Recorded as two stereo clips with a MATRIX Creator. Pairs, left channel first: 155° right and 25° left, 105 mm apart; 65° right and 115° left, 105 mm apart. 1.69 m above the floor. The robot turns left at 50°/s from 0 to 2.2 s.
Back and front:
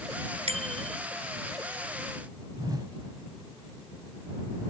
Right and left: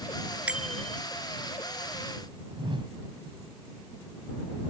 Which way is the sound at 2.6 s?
75° left.